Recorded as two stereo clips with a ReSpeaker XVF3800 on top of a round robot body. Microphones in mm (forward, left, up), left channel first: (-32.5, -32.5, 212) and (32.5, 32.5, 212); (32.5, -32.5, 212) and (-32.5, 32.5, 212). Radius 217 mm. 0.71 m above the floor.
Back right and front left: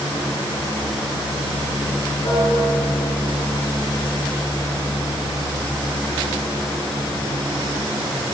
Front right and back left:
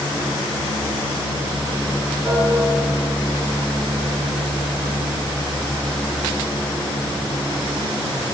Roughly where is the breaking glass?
No breaking glass in this recording.